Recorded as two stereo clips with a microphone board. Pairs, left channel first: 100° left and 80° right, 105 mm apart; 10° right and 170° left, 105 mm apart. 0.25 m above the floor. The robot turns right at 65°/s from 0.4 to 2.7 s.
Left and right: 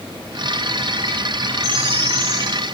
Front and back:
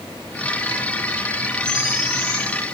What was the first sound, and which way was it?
A bird, 170° right.